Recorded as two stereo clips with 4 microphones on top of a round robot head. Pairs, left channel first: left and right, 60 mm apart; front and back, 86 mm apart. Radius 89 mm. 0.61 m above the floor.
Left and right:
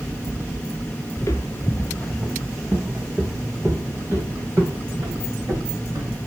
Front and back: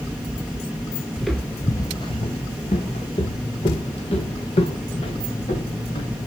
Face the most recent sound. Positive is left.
turn(degrees=-25)